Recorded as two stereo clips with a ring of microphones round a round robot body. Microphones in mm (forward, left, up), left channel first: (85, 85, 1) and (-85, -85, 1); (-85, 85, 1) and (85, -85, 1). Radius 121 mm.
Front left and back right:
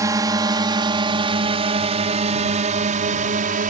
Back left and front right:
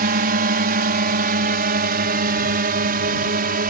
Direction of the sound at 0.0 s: 65° right.